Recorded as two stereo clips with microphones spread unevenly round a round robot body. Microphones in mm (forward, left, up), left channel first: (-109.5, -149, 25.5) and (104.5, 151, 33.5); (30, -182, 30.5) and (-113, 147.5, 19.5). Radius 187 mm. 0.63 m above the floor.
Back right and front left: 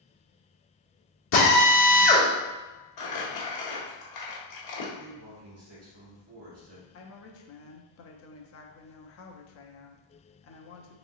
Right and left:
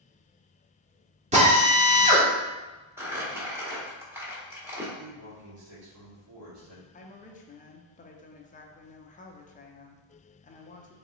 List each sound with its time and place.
1.3 s a drill: 175° right, 1.5 m
3.0 s crumpling: 165° right, 1.2 m
5.0 s a man speaking: 95° left, 1.8 m
6.9 s a woman speaking: 125° right, 0.6 m